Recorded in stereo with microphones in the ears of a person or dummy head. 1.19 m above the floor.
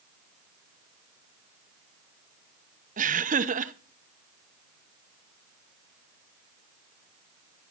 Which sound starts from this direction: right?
Laughter, at 3.0 s.